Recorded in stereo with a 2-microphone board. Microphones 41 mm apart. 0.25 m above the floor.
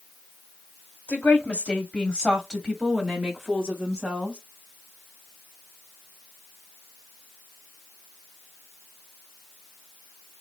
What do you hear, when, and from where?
1.1 s a woman speaking: 40° left (ahead or behind), 1.4 m; by 4.4 s 20° right (ahead or behind), 1.6 m